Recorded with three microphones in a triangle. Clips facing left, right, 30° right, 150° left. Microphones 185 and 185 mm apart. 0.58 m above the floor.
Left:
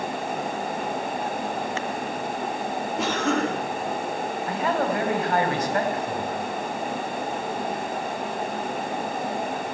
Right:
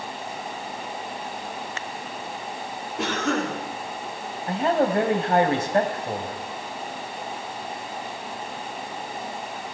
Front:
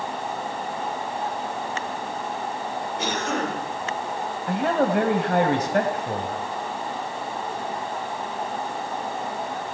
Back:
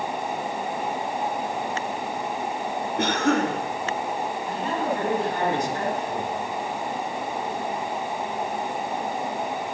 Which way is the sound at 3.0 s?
Straight behind.